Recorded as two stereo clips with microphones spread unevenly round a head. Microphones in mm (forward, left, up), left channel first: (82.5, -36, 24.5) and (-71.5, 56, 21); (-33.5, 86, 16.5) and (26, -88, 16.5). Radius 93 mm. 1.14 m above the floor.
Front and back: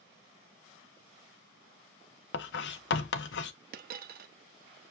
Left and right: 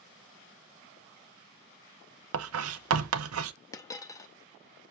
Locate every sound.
2.3 s writing: 60° right, 0.7 m
3.7 s a dropped coin: straight behind, 0.6 m